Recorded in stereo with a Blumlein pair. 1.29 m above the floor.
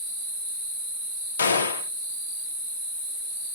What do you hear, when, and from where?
1.4 s a gunshot: 70° left, 0.6 m